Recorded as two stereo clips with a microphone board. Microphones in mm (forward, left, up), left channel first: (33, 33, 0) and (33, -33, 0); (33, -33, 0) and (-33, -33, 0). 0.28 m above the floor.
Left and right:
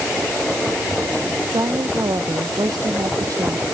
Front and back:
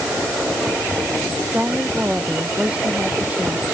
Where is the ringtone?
No ringtone in this recording.